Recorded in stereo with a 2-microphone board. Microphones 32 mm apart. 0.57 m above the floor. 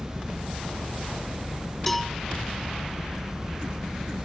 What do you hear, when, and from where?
0.0 s an engine running: 65° right (ahead or behind)
1.9 s a cowbell: 5° left (ahead or behind)